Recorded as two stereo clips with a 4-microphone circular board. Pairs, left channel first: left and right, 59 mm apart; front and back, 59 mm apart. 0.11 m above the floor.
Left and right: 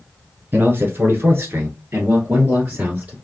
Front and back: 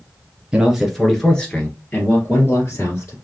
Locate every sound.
0.5 s a man speaking: 110° right, 1.3 m; by 3.1 s 40° right, 2 m